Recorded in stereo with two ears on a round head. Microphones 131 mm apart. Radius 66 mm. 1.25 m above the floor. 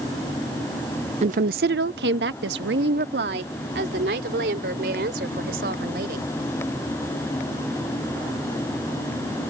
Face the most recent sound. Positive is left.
turn(degrees=-70)  # may be behind; listen again after turning